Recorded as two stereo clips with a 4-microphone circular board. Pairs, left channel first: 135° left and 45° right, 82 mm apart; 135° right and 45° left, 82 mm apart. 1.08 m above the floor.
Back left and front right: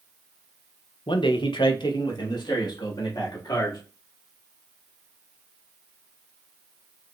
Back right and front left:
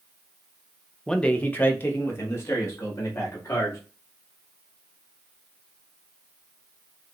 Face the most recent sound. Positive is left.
turn(degrees=170)